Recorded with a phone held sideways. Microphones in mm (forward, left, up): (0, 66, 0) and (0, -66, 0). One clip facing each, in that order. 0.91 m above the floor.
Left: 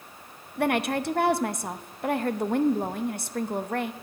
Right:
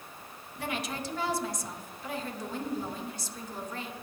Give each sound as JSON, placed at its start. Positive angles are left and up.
{"t": 0.6, "sound": "a woman speaking", "side_deg": 60, "distance_m": 0.6}